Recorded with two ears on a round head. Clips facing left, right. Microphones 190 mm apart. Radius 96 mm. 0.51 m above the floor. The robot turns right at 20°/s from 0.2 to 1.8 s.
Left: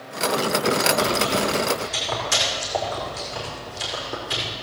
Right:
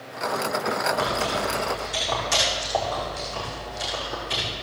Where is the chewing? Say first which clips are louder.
Left 4 dB; 15° right (ahead or behind), 5 m; by 4.5 s 5° left (ahead or behind), 5 m.